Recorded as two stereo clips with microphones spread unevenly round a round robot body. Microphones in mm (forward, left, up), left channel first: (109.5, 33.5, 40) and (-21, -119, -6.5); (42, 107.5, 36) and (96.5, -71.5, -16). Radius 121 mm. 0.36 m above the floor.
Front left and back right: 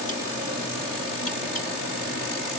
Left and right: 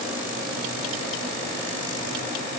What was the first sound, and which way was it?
Only background noise.